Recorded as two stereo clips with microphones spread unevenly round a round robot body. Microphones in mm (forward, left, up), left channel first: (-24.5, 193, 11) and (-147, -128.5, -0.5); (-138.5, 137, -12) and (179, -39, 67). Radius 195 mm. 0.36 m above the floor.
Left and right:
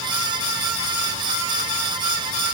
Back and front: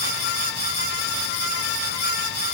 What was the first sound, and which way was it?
Only background noise.